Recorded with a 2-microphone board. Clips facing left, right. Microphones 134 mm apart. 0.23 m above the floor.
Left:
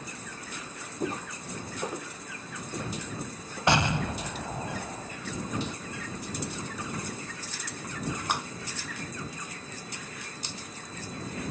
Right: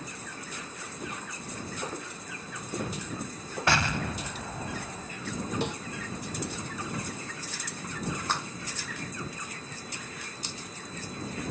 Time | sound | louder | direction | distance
1.0 | footsteps | left 8 dB | 40° left (ahead or behind) | ?
3.7 | an explosion | left 3 dB | 20° left (ahead or behind) | ?
5.6 | a snare drum | right 4 dB | 65° right (ahead or behind) | ?
8.3 | a clap | left 2 dB | 15° left (ahead or behind) | ?